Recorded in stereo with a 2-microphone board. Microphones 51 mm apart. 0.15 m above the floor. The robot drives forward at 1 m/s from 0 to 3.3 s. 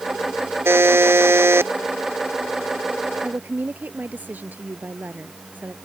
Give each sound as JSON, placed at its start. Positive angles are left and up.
{"t": 0.7, "sound": "a buzzer", "side_deg": -55}
{"t": 3.2, "sound": "a woman speaking", "side_deg": -40}